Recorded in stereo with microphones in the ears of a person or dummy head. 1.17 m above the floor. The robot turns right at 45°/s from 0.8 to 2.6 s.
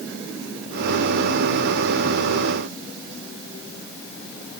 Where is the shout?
No shout in this recording.